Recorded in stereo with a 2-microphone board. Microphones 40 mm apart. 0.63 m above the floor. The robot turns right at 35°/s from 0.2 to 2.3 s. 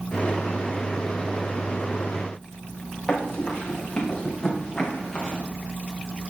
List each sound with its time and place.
3.1 s running footsteps: 20° left (ahead or behind), 5 m; by 5.4 s 10° left (ahead or behind), 4 m